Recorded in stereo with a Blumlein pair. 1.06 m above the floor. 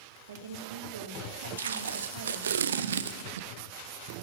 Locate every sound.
0.3 s a woman speaking: 65° right, 3 m
1.6 s tape being pulled: 65° right, 0.8 m